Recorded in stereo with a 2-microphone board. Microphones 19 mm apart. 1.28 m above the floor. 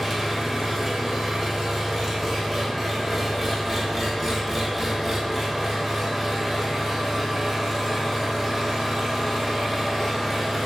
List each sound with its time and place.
0.0 s an engine running: 10° right (ahead or behind), 0.8 m